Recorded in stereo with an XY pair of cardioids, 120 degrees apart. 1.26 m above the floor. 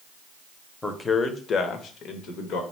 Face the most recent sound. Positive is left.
turn(degrees=75)